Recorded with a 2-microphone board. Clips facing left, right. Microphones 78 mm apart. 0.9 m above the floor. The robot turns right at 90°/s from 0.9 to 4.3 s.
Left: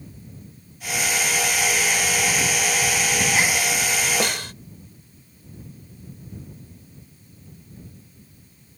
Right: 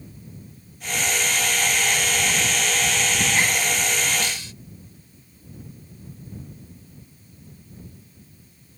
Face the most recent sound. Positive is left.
turn(degrees=55)  # may be behind; listen again after turning